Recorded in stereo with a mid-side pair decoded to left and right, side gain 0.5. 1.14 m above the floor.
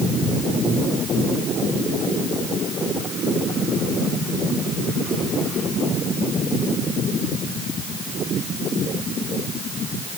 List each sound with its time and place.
Only background noise.